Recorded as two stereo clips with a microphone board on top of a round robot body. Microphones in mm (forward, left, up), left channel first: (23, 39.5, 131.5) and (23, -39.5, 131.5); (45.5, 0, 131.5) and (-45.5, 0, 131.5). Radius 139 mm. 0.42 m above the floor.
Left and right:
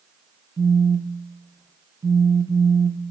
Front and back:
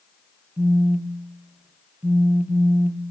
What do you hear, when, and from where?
0.6 s a phone buzzing: 110° right, 0.9 m